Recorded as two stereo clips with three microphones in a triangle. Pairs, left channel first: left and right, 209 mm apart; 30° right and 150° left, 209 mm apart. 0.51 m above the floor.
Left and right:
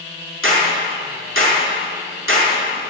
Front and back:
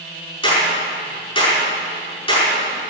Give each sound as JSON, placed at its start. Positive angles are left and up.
{"t": 0.4, "sound": "a clap", "azimuth_deg": -95, "distance_m": 5.5}